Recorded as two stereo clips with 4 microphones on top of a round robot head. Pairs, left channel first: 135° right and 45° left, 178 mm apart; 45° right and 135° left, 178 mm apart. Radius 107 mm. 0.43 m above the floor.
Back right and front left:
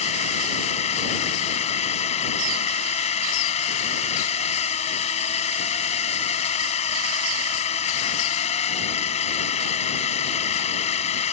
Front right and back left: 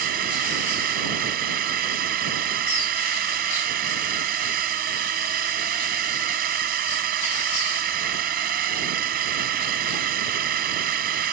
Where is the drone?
170° left.